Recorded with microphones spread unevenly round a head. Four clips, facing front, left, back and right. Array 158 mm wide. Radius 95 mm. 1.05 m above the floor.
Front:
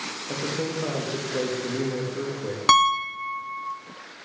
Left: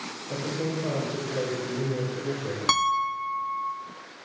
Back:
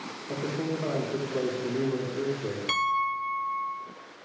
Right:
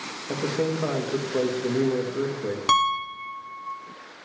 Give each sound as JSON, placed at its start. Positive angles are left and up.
{"t": 0.3, "sound": "a man speaking", "azimuth_deg": -55, "distance_m": 1.7}
{"t": 2.7, "sound": "a piano", "azimuth_deg": 0, "distance_m": 1.5}